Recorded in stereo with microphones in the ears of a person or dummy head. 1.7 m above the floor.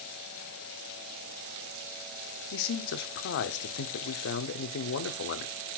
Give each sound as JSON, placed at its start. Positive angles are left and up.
{"t": 2.5, "sound": "a man speaking", "side_deg": 70, "distance_m": 0.7}